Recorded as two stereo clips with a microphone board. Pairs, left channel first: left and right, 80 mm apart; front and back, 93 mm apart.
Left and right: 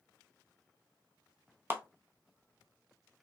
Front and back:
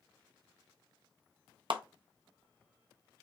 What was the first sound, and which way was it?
A clap, 150° right.